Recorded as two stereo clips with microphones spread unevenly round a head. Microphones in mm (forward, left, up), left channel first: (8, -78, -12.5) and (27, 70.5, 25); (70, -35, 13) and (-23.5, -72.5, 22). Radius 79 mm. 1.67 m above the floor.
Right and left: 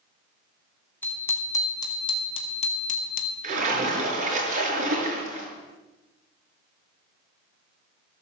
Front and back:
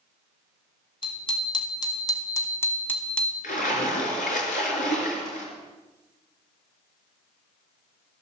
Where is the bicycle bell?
15° right, 3.5 m; by 3.3 s 65° right, 2 m.